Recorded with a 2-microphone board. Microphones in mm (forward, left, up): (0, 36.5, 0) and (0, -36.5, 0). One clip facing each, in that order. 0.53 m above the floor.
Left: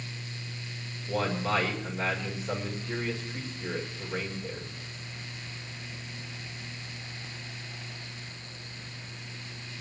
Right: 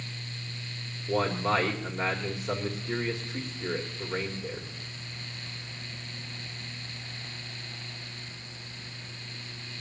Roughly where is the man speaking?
Centre.